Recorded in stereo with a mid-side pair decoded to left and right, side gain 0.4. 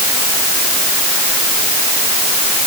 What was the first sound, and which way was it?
Only background noise.